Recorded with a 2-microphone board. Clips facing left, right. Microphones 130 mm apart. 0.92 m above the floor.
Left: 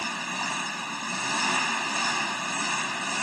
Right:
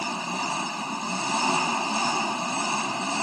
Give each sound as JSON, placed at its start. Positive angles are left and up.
{"t": 0.0, "sound": "an engine running", "side_deg": -25}